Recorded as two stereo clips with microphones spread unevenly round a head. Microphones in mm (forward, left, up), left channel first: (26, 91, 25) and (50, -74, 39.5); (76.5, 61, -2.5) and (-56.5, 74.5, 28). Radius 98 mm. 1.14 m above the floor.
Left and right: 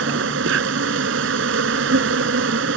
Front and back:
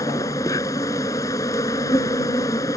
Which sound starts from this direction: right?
An insect, at 0.0 s.